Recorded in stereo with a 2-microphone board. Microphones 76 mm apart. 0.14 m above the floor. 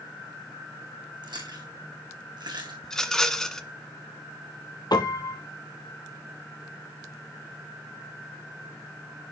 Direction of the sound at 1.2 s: 80° right.